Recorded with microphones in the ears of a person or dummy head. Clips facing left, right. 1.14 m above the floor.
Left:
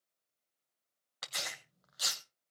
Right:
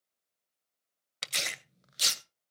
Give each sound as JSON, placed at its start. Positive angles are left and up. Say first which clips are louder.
{"t": 1.2, "sound": "tearing paper", "louder": "right 4 dB", "side_deg": -30, "distance_m": 0.6}